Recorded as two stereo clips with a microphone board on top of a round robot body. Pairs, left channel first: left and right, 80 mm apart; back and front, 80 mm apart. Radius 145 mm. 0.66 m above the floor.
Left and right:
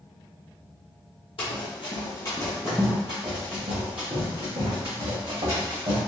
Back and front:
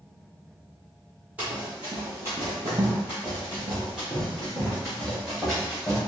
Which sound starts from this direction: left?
Running footsteps, at 1.4 s.